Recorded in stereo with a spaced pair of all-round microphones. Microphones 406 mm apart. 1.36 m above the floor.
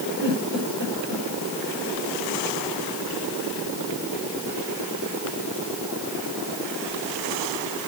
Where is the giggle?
75° right (ahead or behind), 8.5 m.